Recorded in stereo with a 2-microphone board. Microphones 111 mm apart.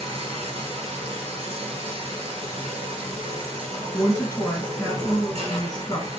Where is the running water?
65° right (ahead or behind), 1.0 m.